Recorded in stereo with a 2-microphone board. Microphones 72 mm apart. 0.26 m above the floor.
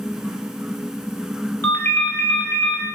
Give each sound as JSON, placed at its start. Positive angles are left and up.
{"t": 1.6, "sound": "a ringtone", "side_deg": 40, "distance_m": 1.9}